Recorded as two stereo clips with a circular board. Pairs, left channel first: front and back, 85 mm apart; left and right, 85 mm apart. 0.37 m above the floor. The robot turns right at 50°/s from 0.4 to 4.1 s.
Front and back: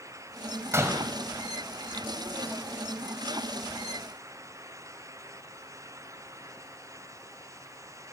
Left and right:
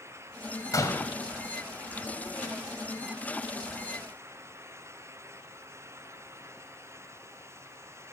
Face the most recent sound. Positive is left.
turn(degrees=-65)